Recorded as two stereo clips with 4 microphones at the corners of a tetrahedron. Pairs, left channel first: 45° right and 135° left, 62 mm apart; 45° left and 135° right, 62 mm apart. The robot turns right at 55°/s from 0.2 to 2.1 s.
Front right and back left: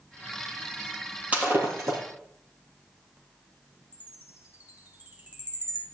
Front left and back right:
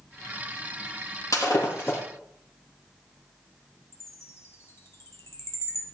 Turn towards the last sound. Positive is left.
turn(degrees=80)